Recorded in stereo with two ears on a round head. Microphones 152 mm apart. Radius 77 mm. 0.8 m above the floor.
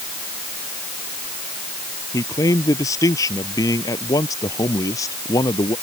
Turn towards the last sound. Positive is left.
turn(degrees=20)  # may be behind; listen again after turning